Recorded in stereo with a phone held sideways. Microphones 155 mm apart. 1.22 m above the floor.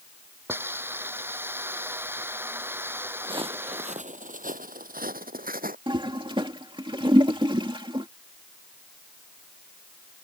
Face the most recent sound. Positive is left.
turn(degrees=-30)  # may be behind; listen again after turning